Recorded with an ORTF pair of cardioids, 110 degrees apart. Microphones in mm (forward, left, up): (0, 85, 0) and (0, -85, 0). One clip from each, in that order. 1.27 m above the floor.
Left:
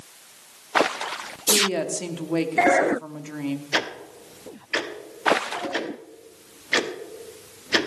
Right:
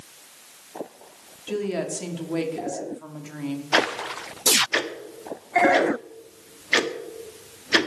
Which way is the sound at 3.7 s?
10° right.